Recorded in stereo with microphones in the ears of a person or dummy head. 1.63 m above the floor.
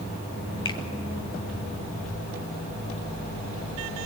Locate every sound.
0.7 s a finger snap: 25° left (ahead or behind), 1.4 m